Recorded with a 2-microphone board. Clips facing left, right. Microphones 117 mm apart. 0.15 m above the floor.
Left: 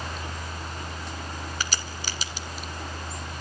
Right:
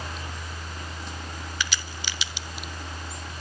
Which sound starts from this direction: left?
A crack, at 1.6 s.